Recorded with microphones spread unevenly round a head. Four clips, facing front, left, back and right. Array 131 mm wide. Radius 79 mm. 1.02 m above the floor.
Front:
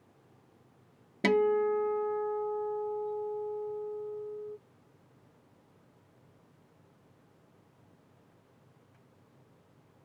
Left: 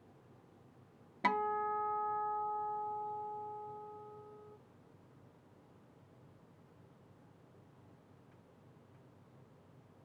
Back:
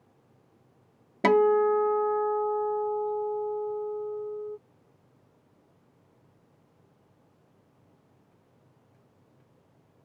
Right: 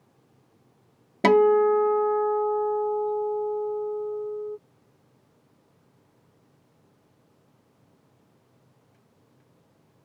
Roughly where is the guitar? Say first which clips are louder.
Right 17 dB, back 5 dB; behind right.